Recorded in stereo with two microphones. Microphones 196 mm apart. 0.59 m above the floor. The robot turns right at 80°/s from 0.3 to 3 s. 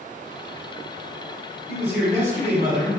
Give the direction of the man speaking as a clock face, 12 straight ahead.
1 o'clock.